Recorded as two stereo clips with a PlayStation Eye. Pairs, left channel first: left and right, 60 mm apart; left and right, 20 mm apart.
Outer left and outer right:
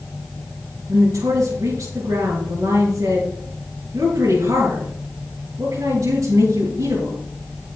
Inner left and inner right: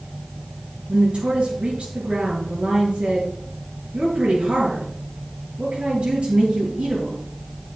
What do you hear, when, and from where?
0.9 s a woman speaking: 75° right (ahead or behind), 5.5 m